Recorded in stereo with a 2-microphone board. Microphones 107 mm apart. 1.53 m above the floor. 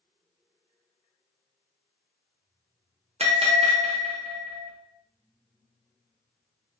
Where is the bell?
65° right (ahead or behind), 0.6 m.